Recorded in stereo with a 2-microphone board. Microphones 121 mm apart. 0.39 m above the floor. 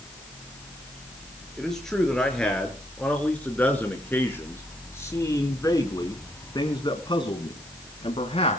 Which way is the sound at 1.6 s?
5° left (ahead or behind).